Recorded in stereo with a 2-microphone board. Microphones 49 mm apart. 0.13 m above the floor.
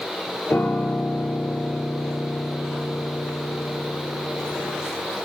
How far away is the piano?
About 1.6 m.